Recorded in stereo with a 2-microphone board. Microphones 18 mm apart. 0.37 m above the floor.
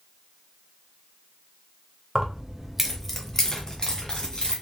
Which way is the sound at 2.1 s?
40° right (ahead or behind).